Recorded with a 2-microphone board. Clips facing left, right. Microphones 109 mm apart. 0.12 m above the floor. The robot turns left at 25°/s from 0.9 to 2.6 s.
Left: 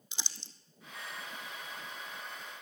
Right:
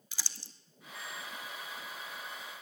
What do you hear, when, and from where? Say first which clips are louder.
0.1 s crumpling: left 1 dB; 20° left (ahead or behind), 1.0 m